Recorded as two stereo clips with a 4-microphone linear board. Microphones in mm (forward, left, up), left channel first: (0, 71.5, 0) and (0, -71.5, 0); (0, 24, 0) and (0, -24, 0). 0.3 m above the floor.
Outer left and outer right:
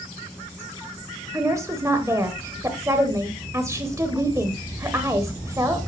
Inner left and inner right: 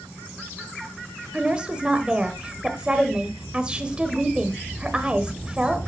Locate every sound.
1.3 s a woman speaking: 20° right (ahead or behind), 1.0 m